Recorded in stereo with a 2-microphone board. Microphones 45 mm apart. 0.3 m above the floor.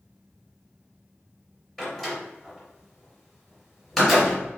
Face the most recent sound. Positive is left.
turn(degrees=10)  # may be behind; listen again after turning